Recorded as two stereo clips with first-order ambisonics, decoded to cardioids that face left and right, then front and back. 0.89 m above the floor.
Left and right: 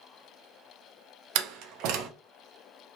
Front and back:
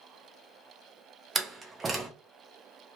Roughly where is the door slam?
Right.